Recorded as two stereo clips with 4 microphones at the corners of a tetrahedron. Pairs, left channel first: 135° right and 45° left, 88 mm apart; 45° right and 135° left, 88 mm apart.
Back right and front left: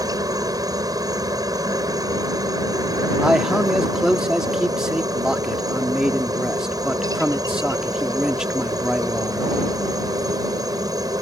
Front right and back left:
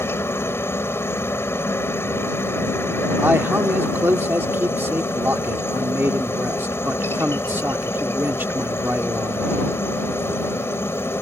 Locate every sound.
0.0 s a helicopter: 10° left
3.2 s a man speaking: 120° left